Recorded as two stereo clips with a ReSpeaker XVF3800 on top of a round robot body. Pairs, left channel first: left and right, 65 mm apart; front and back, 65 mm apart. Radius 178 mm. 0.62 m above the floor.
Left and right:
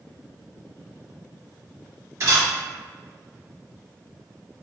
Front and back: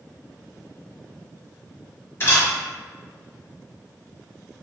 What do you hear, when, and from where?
2.2 s a camera shutter: 55° right, 1.9 m